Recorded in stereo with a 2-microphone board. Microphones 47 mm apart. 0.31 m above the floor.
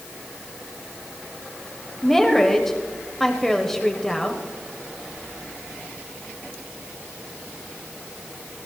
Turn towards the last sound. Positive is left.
turn(degrees=5)  # may be behind; listen again after turning